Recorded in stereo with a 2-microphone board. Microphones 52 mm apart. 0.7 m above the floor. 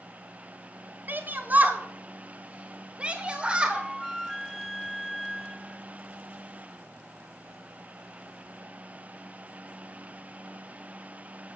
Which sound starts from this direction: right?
A shout, at 1.1 s.